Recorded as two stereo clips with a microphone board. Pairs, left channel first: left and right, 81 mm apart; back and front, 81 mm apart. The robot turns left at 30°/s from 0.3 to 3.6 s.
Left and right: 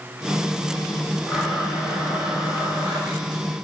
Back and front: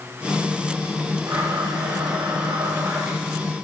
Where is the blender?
10° right, 3.5 m; by 3.4 s 75° right, 3.5 m.